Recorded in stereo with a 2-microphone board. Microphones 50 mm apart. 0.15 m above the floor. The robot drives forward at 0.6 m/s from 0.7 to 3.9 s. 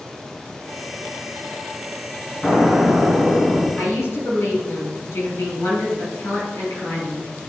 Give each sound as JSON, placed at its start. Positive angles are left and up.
{"t": 2.4, "sound": "an explosion", "side_deg": 10, "distance_m": 1.8}
{"t": 3.8, "sound": "a woman speaking", "side_deg": 55, "distance_m": 2.5}